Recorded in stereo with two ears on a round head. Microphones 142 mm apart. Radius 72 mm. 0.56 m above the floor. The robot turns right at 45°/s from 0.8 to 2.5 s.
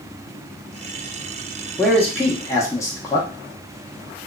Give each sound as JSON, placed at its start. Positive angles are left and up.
{"t": 1.8, "sound": "a man speaking", "side_deg": 5, "distance_m": 0.7}